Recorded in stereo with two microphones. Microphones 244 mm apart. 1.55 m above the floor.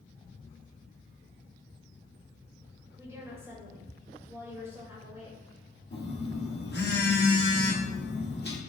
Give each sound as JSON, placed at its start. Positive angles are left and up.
{"t": 3.0, "sound": "a woman speaking", "side_deg": -10, "distance_m": 3.0}
{"t": 5.9, "sound": "a phone buzzing", "side_deg": 45, "distance_m": 1.3}